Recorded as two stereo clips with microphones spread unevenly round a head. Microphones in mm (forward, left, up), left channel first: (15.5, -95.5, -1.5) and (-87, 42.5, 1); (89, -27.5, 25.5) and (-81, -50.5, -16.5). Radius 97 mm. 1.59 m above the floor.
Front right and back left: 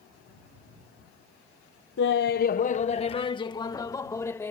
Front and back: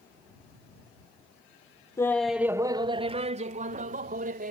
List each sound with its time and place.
2.0 s laughter: 55° right; by 4.5 s 130° right